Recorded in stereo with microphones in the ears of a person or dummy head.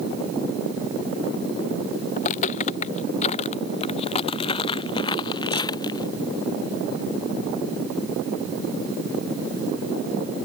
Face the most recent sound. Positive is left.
turn(degrees=25)  # may be behind; listen again after turning